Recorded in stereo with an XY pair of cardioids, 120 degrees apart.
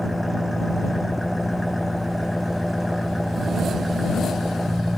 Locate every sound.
0.0 s an engine running: straight ahead